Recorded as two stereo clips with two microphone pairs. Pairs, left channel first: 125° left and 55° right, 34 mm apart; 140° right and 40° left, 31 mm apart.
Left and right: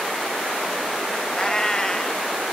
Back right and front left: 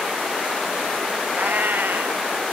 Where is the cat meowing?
50° left, 0.6 m.